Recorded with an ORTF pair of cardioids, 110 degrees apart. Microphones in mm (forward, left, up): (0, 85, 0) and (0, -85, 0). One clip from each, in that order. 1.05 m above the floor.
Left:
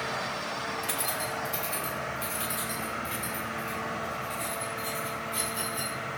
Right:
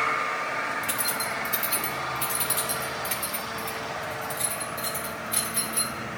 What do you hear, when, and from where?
0.8 s keys jangling: 10° right, 0.9 m; by 6.0 s 80° right, 3.5 m